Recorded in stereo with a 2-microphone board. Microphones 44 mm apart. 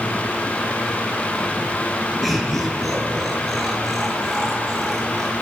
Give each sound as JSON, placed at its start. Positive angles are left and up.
{"t": 2.2, "sound": "laughter", "side_deg": 0, "distance_m": 7.5}